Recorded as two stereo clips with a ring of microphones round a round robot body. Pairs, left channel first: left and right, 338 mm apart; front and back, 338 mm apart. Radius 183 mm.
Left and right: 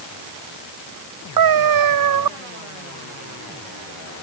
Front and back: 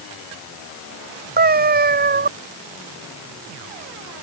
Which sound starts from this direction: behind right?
A cat meowing, at 1.4 s.